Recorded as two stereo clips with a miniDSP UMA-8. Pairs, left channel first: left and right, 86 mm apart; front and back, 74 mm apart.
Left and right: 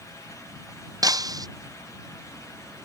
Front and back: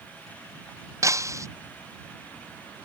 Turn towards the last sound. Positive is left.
turn(degrees=-135)